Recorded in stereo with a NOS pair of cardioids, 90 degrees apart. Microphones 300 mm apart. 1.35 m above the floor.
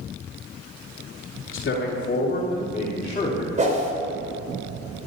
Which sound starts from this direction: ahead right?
A whoosh, at 3.6 s.